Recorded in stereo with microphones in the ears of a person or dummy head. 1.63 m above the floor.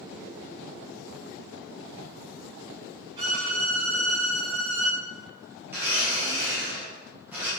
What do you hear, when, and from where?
3.2 s a violin: 30° right (ahead or behind), 1.1 m
5.7 s a blender: 10° right (ahead or behind), 1.3 m